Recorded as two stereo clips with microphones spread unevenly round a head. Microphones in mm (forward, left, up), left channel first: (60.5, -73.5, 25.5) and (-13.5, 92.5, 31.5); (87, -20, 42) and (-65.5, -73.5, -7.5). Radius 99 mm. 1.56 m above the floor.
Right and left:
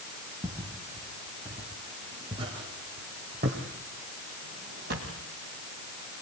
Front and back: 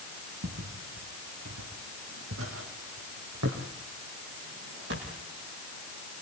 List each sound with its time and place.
0.4 s footsteps: 170° right, 4.5 m; by 5.2 s 155° left, 4 m